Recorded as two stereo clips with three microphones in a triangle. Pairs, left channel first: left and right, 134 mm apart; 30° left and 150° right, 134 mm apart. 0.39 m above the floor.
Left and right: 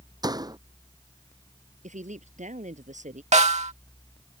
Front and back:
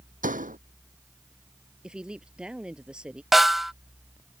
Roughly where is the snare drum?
Ahead right.